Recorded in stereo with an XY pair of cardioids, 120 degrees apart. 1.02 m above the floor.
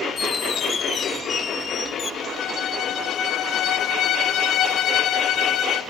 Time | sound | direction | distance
0.2 | a squeak | 35° left | 0.6 m
2.2 | a violin | 60° left | 0.7 m